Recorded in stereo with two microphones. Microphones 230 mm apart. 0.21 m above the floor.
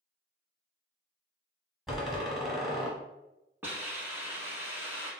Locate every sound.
1.9 s a door slam: centre (ahead or behind), 0.8 m
3.6 s a hiss: 10° right (ahead or behind), 0.8 m